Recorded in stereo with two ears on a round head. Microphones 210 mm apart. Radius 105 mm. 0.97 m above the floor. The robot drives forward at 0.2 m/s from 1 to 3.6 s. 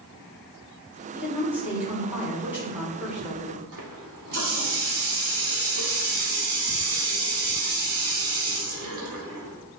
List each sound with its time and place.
1.1 s a woman speaking: 10° right (ahead or behind), 3 m; by 3.6 s 5° right (ahead or behind), 3.5 m
3.7 s a running tap: 65° right (ahead or behind), 2 m